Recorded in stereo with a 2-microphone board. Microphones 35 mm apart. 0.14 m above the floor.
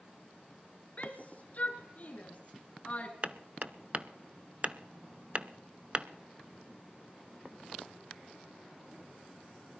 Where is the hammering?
35° right (ahead or behind), 0.5 m.